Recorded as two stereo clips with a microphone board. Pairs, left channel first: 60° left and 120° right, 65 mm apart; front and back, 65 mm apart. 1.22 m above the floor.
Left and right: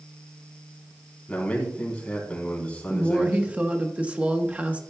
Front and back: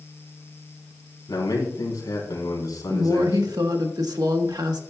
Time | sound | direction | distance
1.3 | a man speaking | 10° right | 3.5 m
2.9 | a woman speaking | 170° left | 1.2 m